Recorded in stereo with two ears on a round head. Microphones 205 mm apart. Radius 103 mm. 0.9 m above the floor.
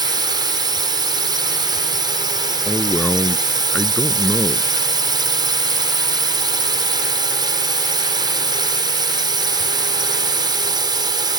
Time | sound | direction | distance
0.0 | a drone | 20° right (ahead or behind) | ?
2.6 | a man speaking | 5° left (ahead or behind) | ?